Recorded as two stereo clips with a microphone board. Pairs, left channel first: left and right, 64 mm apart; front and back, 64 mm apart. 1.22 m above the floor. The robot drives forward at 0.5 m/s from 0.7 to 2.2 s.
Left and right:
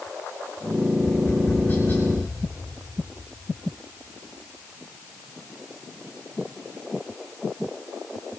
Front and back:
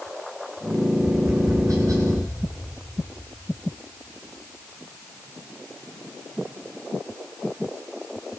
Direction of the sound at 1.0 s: 150° left.